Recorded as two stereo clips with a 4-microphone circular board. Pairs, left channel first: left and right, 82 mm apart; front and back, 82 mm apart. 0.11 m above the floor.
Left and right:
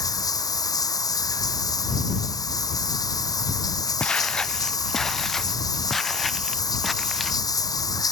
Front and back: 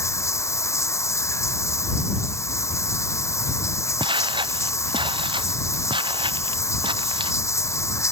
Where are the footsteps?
165° left; by 7.4 s straight behind.